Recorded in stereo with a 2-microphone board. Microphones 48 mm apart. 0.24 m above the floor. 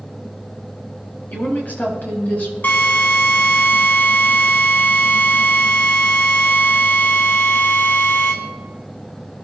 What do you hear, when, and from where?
1.3 s a woman speaking: 40° left (ahead or behind), 6 m; by 2.5 s 35° left (ahead or behind), 6.5 m
2.6 s a drill: 45° left (ahead or behind), 3.5 m